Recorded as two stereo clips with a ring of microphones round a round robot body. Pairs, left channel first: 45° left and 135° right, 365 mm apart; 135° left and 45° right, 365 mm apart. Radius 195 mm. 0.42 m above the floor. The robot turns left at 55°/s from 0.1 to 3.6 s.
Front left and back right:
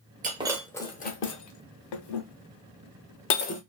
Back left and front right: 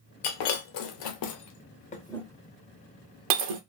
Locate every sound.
0.2 s breaking glass: 155° left, 0.8 m; by 3.6 s 30° right, 0.8 m